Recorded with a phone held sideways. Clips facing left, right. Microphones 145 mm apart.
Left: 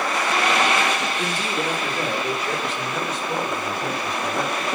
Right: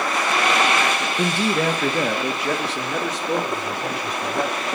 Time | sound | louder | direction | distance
1.2 | a man speaking | right 5 dB | 60° right (ahead or behind) | 1.1 m